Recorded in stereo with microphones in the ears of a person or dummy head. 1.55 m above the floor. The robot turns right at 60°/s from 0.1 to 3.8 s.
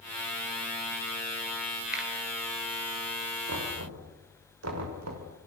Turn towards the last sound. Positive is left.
turn(degrees=-85)